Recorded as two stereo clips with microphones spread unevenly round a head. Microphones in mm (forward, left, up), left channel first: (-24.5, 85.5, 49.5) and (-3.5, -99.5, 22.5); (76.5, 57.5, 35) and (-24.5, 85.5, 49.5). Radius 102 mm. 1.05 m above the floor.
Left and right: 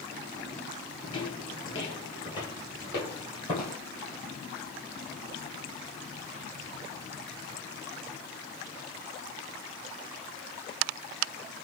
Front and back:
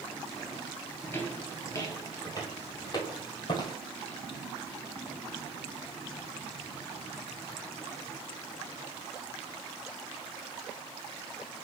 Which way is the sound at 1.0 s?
55° left.